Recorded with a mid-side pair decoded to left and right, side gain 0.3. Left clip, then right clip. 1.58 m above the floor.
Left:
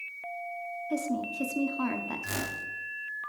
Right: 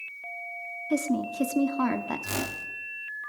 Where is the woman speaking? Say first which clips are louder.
Right 4 dB; 60° right, 0.6 m.